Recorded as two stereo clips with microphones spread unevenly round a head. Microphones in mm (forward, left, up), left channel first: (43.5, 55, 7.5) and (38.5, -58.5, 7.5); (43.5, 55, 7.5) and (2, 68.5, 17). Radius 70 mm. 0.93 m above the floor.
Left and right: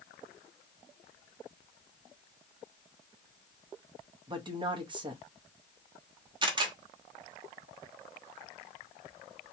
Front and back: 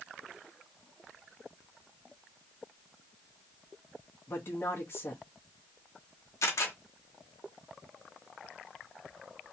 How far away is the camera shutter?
About 1.3 m.